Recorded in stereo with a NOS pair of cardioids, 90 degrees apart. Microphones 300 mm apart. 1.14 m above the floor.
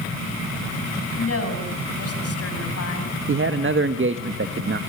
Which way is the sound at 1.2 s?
50° left.